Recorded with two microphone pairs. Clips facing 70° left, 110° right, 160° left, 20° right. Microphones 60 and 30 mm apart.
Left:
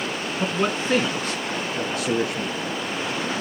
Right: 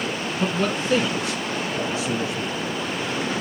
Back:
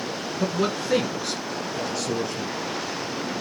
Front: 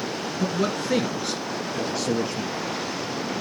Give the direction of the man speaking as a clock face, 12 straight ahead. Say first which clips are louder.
Even, back 1 dB; 8 o'clock.